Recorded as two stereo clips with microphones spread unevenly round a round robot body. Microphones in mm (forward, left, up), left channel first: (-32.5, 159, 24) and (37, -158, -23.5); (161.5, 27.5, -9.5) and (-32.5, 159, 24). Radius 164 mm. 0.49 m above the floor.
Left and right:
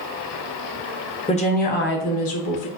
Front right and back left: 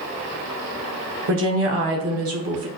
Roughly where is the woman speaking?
Behind.